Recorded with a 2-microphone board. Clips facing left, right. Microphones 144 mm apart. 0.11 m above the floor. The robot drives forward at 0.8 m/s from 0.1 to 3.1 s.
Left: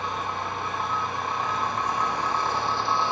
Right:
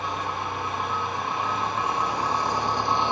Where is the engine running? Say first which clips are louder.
Right 1 dB; 5° right (ahead or behind), 3.5 m; by 3.1 s 20° right (ahead or behind), 0.9 m.